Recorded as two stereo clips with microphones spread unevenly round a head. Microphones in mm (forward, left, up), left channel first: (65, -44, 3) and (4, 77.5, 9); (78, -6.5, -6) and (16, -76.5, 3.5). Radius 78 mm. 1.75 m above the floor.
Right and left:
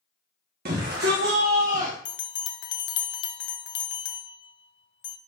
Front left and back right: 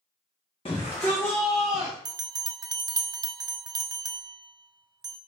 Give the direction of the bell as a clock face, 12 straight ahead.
4 o'clock.